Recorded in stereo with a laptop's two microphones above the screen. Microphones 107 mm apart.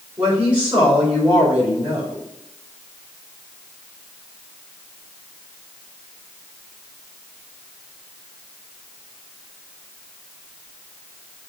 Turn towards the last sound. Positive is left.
turn(degrees=-10)  # may be behind; listen again after turning